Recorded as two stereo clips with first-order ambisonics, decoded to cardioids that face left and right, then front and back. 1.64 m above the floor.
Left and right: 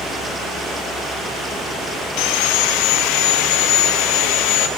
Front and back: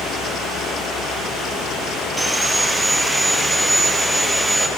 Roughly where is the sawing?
Left.